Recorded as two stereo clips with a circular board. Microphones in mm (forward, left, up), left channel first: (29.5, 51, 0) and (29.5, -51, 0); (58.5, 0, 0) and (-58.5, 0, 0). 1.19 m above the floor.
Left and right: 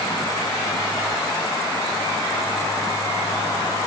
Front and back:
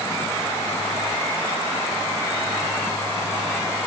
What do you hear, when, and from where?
Only background noise.